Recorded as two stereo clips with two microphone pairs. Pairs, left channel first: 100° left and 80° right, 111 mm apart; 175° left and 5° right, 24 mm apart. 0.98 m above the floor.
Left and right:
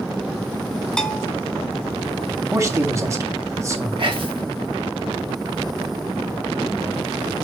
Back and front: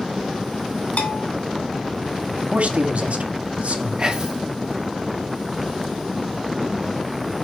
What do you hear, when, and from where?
1.0 s a bell: straight behind, 1.0 m
2.5 s a man speaking: 20° right, 1.8 m
4.0 s whispering: 60° right, 1.8 m